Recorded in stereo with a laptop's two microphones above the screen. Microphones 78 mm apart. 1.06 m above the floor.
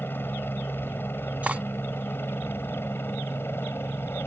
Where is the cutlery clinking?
20° right (ahead or behind).